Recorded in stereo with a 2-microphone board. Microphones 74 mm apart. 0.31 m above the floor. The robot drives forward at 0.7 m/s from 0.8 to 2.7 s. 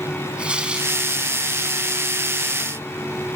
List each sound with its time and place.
0.4 s tearing paper: 15° right (ahead or behind), 3.5 m